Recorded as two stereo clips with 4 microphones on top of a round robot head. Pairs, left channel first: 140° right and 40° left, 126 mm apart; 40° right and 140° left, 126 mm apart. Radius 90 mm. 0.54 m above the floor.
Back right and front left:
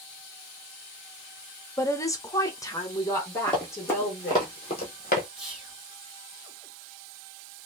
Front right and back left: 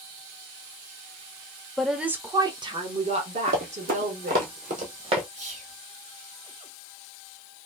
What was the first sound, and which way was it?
A woman speaking, 120° right.